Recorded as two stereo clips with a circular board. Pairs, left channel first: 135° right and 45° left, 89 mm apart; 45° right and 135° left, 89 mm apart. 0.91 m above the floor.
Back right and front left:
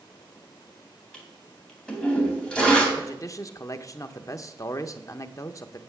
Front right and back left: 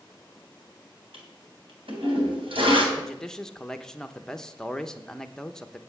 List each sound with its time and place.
1.1 s a toilet flushing: 145° left, 3 m
3.0 s a man speaking: 125° right, 0.8 m